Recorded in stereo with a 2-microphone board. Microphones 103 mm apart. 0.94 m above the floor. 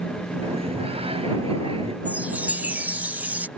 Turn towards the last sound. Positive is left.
turn(degrees=-15)  # may be behind; listen again after turning